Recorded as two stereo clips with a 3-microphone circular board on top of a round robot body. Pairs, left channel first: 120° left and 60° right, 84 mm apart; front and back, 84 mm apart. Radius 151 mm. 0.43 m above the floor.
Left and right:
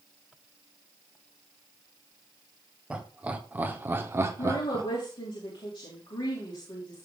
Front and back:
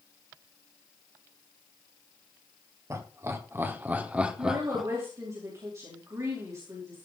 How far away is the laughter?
About 2.5 m.